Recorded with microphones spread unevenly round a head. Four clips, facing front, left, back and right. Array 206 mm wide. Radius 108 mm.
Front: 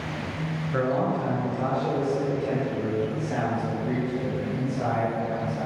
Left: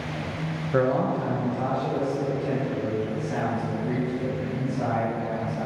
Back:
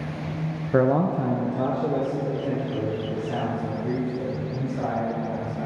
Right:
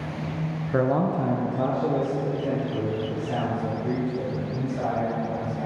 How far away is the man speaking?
About 0.8 m.